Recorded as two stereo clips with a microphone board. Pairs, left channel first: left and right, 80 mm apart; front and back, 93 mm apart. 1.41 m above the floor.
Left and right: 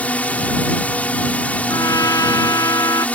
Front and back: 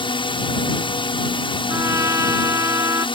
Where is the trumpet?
125° left.